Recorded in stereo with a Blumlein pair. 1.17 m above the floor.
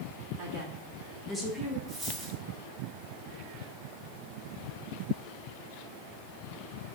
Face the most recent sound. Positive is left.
turn(degrees=-10)